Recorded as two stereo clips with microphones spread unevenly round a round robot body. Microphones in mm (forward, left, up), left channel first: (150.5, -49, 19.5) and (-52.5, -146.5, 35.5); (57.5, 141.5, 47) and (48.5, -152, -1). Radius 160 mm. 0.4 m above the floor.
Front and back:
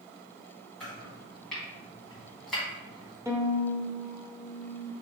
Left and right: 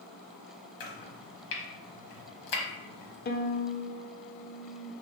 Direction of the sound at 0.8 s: 115° left.